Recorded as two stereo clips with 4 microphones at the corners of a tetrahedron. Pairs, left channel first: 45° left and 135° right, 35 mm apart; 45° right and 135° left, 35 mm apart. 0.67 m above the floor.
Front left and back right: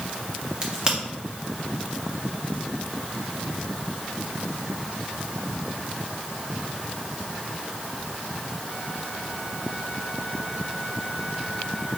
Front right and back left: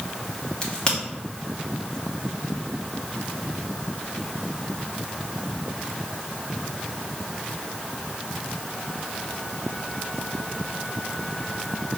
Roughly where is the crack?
Right.